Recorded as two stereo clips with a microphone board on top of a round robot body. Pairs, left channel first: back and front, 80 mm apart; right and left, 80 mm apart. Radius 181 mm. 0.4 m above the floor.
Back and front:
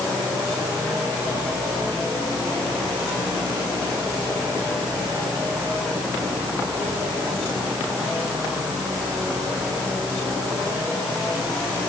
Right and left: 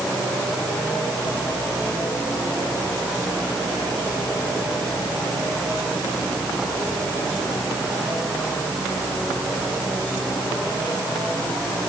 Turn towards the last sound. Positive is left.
No sound to turn to.